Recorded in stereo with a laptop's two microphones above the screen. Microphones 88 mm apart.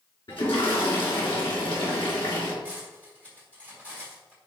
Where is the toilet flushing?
75° left (ahead or behind), 4 m.